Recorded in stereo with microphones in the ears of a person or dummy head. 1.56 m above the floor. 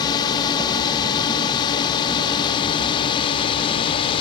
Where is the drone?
25° left (ahead or behind); by 4.2 s 30° left (ahead or behind).